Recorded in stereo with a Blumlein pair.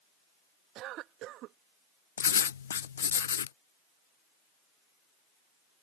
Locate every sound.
0.8 s a cough: 35° right
2.2 s writing: 65° left